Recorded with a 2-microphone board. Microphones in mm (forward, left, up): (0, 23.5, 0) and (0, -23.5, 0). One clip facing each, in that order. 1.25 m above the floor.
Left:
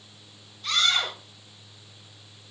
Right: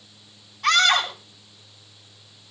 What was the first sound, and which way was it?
A scream, 80° right.